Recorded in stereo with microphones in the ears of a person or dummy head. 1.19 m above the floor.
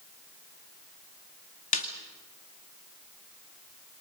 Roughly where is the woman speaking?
No woman speaking in this recording.